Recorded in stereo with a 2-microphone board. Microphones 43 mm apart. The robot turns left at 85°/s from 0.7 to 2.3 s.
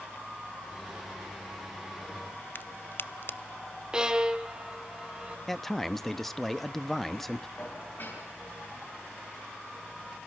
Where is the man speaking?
10° left (ahead or behind), 0.7 m.